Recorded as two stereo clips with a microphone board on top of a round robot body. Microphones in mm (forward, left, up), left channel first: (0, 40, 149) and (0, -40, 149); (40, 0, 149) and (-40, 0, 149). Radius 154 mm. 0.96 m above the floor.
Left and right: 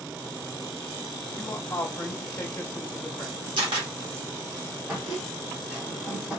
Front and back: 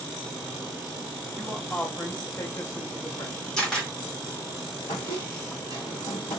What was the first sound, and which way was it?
A man speaking, 90° left.